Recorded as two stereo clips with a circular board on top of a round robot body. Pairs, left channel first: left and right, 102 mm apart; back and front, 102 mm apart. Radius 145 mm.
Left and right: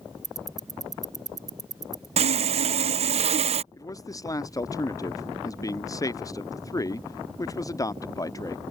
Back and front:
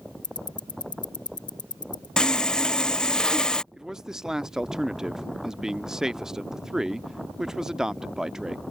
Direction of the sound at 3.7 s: 80° left.